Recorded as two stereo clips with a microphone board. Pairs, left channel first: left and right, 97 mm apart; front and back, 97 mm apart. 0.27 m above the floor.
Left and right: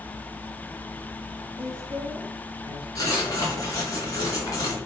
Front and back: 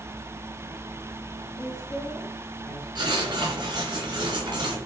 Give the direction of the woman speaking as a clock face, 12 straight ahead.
1 o'clock.